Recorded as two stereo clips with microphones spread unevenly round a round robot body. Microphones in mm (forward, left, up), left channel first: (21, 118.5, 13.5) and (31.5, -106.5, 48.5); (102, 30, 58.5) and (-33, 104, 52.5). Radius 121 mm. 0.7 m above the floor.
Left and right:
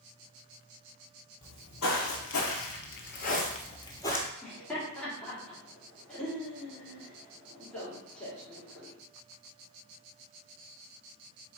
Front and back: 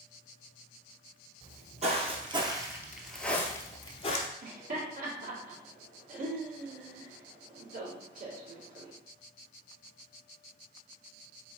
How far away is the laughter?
About 1.7 m.